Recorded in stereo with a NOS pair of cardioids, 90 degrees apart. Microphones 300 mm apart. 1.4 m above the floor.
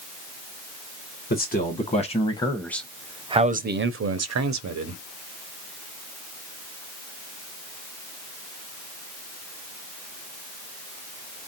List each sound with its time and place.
1.3 s a man speaking: 30° left, 1.3 m; by 5.0 s 75° right, 0.9 m